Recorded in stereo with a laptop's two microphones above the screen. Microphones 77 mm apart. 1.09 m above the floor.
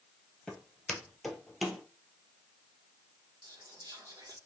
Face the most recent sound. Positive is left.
turn(degrees=-60)  # may be behind; listen again after turning